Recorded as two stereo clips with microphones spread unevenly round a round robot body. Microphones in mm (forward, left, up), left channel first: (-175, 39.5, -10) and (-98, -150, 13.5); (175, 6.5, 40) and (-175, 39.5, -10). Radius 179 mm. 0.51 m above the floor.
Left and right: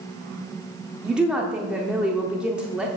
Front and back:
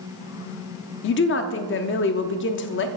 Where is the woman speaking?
30° left, 0.7 m.